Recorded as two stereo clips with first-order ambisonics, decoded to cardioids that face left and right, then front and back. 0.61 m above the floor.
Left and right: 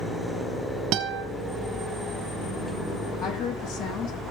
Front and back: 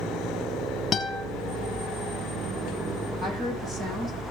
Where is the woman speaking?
120° left, 5 m.